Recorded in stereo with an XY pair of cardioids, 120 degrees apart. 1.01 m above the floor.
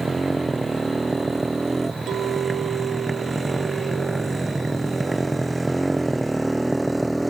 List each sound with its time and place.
0.0 s a motorcycle: 20° right; by 7.3 s 10° right
2.1 s a clink: 55° right